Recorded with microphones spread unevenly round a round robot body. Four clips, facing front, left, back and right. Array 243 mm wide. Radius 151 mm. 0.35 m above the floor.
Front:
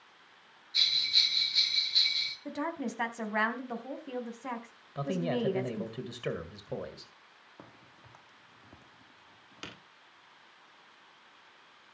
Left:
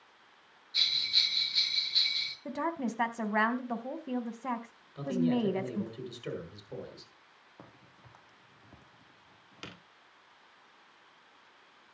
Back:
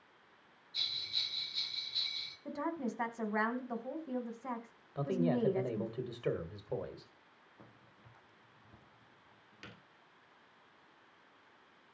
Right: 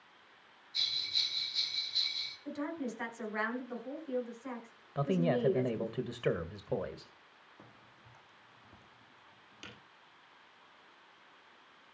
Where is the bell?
45° left, 6.5 m.